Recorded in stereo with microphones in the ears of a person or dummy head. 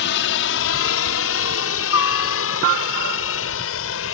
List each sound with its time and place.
0.0 s a helicopter: 60° left (ahead or behind); by 4.2 s 70° left (ahead or behind)